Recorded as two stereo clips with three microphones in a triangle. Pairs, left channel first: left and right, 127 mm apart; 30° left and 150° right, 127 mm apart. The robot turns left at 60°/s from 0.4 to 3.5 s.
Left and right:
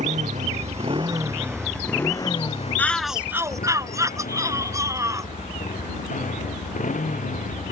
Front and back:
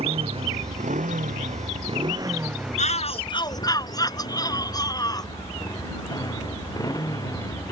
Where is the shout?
15° left; by 5.3 s 25° right.